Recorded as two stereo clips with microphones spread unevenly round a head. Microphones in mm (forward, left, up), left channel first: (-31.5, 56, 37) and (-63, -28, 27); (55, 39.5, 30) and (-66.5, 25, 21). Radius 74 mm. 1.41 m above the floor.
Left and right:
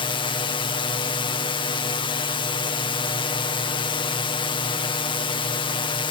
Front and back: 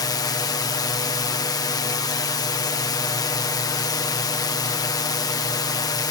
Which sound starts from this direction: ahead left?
A drone, at 0.0 s.